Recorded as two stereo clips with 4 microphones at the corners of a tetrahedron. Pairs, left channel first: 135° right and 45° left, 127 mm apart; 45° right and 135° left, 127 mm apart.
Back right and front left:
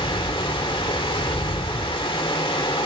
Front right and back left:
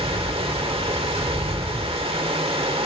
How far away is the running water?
About 1.3 m.